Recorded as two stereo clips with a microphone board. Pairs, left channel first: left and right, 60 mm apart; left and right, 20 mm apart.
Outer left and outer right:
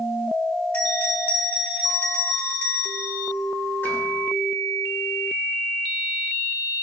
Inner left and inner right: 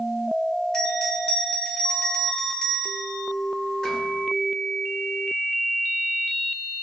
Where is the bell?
30° left (ahead or behind), 2 m.